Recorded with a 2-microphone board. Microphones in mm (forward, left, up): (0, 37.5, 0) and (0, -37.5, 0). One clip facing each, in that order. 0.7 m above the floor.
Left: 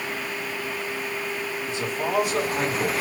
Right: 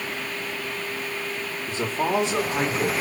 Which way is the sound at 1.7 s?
40° right (ahead or behind).